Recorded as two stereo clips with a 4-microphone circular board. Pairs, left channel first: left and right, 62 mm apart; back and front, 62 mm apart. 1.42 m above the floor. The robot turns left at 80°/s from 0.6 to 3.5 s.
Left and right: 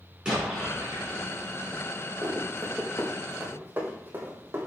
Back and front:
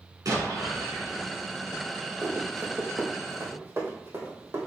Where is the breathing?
I don't hear breathing.